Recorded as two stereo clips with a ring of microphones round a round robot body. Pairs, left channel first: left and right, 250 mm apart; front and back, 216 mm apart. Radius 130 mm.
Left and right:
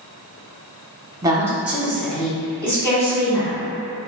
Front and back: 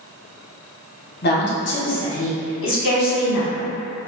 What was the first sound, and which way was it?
A woman speaking, 20° right.